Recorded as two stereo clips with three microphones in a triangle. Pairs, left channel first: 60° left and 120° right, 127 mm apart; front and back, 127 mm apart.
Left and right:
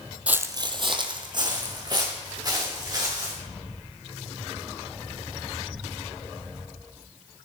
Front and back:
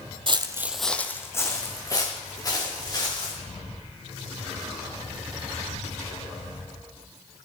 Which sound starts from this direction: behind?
Footsteps, at 0.3 s.